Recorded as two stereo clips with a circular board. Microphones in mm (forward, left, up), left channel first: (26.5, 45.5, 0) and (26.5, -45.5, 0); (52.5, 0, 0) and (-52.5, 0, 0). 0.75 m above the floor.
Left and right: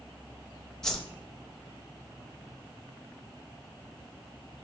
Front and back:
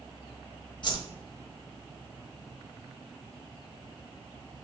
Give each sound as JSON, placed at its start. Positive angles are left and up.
{"t": 0.8, "sound": "a whoosh", "azimuth_deg": 10, "distance_m": 1.0}